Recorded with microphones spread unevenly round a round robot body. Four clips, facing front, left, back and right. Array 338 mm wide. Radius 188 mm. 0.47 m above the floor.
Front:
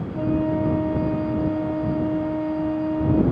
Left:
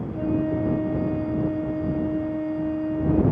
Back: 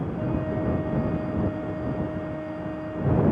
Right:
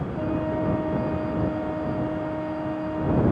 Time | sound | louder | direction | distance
0.1 | a flute | left 3 dB, front 9 dB | 30° left | ?